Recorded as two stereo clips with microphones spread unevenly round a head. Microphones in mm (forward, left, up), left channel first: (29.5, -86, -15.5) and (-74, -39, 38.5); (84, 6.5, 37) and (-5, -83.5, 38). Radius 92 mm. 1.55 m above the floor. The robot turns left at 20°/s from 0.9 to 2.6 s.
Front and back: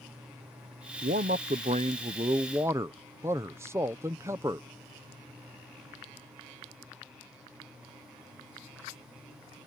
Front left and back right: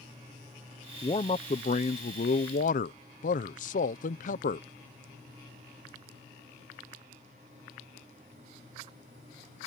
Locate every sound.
1.0 s a man speaking: 105° left; by 4.7 s 75° left